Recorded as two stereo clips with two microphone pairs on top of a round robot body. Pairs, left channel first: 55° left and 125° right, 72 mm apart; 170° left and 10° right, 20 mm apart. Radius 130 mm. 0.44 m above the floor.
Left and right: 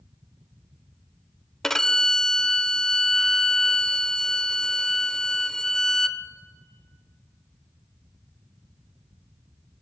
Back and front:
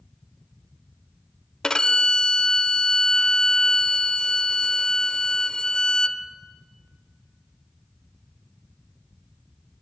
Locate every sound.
1.6 s a violin: 145° left, 0.6 m